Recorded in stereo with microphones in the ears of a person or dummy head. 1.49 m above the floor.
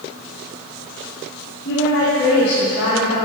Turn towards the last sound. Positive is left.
turn(degrees=75)  # may be behind; listen again after turning